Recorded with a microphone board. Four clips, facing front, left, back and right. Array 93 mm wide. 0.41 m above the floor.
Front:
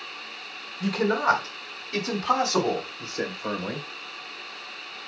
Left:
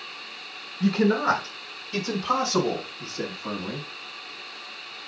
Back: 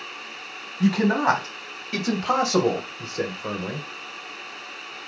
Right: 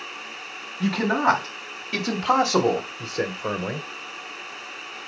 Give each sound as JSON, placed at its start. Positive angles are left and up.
{"t": 0.8, "sound": "a man speaking", "azimuth_deg": -135, "distance_m": 3.5}